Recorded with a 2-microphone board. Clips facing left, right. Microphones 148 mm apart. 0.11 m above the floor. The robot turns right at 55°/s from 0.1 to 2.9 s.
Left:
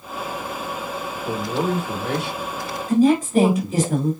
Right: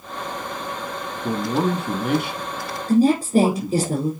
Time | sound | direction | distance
1.2 | a man speaking | 45° right (ahead or behind) | 3.5 m
2.9 | a woman speaking | 45° right (ahead or behind) | 5 m